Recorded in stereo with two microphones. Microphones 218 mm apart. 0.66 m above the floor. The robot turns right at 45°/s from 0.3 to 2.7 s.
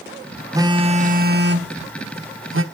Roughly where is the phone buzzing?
Behind.